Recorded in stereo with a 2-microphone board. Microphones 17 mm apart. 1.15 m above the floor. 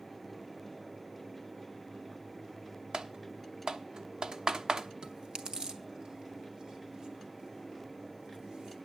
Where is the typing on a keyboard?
50° right (ahead or behind), 1.1 m.